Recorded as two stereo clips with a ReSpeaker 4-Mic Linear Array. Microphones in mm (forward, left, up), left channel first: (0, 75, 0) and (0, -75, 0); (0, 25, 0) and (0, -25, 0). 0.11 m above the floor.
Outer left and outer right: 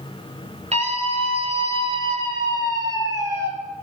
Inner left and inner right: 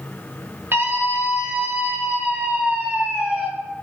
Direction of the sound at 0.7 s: 45° right (ahead or behind).